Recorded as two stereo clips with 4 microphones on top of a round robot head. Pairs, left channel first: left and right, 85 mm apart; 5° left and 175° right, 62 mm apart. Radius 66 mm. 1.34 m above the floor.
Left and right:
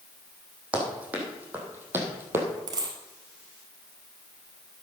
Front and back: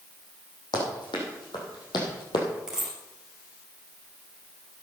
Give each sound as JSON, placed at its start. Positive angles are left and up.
{"t": 0.7, "sound": "running footsteps", "azimuth_deg": -15, "distance_m": 4.5}
{"t": 2.7, "sound": "a dropped coin", "azimuth_deg": -95, "distance_m": 1.5}